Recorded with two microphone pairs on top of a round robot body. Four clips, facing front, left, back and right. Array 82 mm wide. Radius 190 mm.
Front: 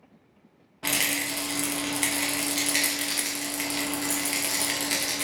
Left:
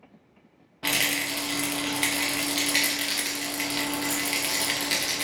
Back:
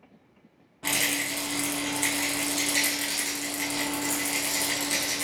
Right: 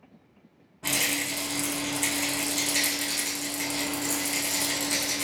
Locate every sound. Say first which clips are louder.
0.8 s a rattle: left 2 dB, even; 50° left, 1.1 m